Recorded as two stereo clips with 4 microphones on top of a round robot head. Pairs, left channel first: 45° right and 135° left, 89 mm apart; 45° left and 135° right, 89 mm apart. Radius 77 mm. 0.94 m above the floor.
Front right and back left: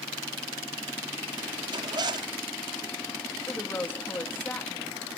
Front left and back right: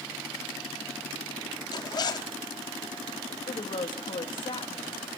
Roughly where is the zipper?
Left.